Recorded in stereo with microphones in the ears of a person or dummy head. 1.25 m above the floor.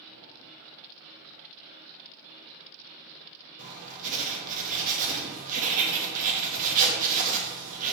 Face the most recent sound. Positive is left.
turn(degrees=-45)  # may be behind; listen again after turning